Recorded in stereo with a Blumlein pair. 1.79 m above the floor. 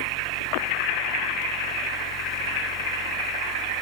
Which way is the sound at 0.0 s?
30° left.